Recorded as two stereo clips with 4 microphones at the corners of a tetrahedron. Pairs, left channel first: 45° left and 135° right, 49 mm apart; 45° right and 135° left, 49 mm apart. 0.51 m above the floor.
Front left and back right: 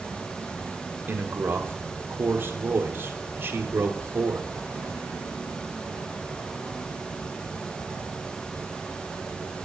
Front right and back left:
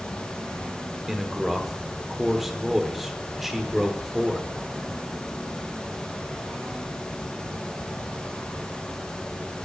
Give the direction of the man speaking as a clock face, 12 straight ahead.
5 o'clock.